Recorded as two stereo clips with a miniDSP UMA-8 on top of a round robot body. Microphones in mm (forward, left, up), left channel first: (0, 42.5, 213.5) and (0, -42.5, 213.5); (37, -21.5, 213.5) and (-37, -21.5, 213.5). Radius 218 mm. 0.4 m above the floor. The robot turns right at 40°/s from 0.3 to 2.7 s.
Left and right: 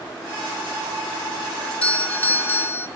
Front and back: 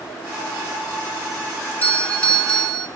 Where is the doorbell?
20° left, 1.2 m; by 2.9 s 65° left, 1.2 m.